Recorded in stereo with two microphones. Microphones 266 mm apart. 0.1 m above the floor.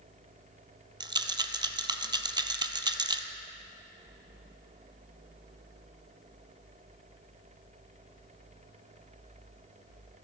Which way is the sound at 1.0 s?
15° right (ahead or behind).